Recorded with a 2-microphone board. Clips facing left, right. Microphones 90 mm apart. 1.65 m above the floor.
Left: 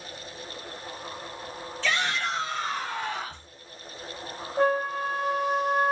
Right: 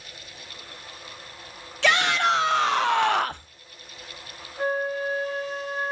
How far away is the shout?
About 1.4 m.